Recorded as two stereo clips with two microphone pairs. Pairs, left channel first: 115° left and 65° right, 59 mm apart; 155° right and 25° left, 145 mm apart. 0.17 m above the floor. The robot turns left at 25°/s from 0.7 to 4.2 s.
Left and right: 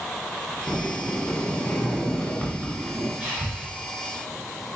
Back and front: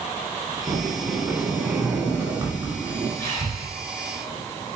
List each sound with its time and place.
0.7 s a sliding door: 105° left, 0.9 m; by 3.1 s 45° left, 0.9 m
3.2 s breathing: 105° right, 1.6 m; by 3.7 s 115° right, 1.6 m